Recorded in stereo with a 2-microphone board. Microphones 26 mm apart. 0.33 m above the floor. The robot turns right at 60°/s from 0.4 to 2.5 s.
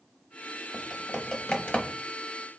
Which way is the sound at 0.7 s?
5° right (ahead or behind).